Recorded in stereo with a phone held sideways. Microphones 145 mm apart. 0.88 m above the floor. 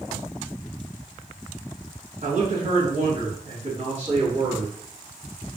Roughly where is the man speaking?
Right.